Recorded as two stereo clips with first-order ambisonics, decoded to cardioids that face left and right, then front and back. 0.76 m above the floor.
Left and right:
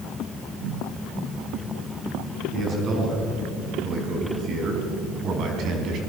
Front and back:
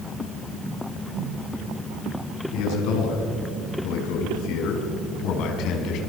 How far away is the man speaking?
About 7 m.